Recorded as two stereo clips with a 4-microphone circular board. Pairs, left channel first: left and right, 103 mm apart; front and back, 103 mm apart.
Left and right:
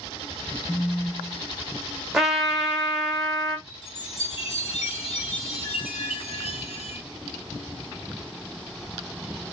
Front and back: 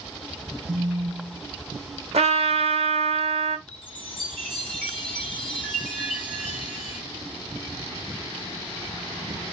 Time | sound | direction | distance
0.7 | a phone buzzing | 150° left | 0.6 m
2.1 | a trumpet | 175° right | 0.8 m
3.7 | a chime | 80° left | 1.6 m